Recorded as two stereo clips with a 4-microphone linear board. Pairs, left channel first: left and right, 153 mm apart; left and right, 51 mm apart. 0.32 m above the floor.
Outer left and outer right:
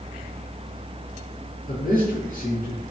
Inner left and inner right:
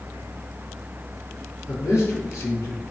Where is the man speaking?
65° left (ahead or behind), 3.5 m.